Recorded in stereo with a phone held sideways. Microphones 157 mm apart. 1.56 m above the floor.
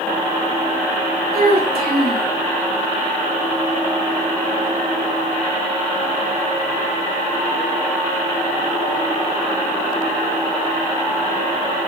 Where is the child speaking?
75° right (ahead or behind), 3 m.